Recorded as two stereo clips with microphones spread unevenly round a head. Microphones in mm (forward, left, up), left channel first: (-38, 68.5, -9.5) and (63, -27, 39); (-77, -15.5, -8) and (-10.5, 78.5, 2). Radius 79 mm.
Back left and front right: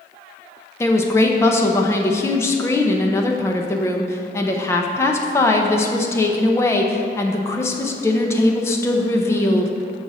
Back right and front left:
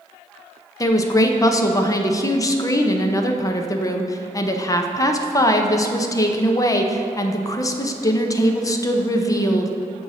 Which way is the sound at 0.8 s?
175° right.